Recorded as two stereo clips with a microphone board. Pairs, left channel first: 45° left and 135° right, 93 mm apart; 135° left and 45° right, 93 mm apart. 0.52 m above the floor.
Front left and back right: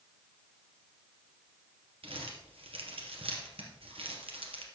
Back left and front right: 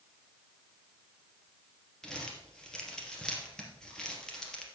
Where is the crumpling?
145° right, 3 m.